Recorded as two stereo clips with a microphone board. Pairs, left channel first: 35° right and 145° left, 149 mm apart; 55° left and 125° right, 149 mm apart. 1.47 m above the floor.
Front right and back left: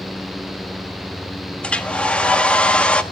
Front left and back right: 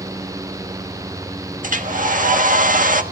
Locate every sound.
1.6 s a hair dryer: 115° right, 1.4 m